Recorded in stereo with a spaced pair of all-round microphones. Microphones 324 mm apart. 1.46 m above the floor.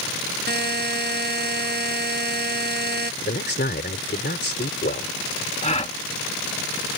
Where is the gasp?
20° left (ahead or behind).